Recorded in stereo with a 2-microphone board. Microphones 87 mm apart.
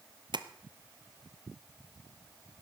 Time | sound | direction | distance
0.3 | tapping | 65° right (ahead or behind) | 1.0 m